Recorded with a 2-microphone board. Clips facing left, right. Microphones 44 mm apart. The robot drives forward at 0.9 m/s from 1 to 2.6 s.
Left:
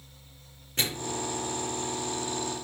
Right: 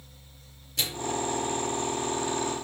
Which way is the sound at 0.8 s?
40° left (ahead or behind).